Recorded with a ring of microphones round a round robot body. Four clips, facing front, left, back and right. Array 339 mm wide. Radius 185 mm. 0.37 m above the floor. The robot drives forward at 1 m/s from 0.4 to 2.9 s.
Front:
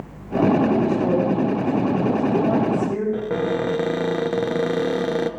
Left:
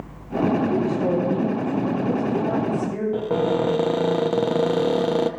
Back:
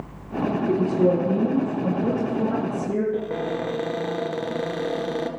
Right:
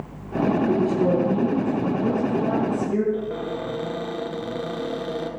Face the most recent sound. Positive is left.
turn(degrees=60)